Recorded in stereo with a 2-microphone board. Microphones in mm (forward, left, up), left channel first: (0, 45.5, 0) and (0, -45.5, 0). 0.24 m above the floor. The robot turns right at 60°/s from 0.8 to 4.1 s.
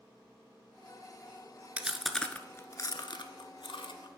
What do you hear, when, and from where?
1.8 s chewing: 20° right (ahead or behind), 0.5 m; by 4.1 s 60° left (ahead or behind), 0.5 m